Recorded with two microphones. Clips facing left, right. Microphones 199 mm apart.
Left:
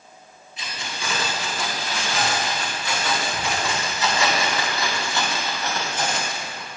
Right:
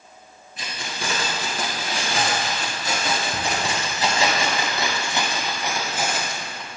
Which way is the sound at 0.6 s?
55° right (ahead or behind).